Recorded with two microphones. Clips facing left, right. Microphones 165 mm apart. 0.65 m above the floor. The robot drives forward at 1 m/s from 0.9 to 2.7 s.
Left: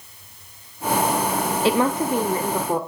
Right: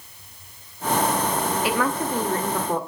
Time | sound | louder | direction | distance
1.6 | a woman speaking | left 8 dB | 30° left (ahead or behind) | 0.6 m